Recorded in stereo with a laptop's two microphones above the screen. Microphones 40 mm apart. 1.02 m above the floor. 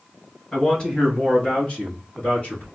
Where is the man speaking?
20° left (ahead or behind), 1.5 m; by 2.6 s 35° left (ahead or behind), 2.5 m.